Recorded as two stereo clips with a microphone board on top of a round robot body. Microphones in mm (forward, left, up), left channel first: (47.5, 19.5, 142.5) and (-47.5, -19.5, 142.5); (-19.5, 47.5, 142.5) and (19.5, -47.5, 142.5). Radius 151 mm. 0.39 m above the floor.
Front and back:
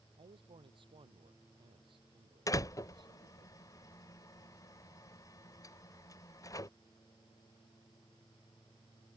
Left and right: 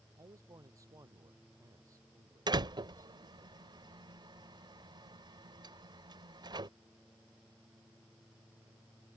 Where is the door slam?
30° right.